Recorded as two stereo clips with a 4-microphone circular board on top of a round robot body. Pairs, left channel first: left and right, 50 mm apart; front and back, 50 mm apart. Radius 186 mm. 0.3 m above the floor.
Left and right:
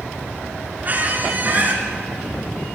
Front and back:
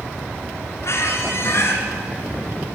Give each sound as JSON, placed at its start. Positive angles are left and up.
{"t": 0.8, "sound": "a squeak", "azimuth_deg": -35, "distance_m": 4.0}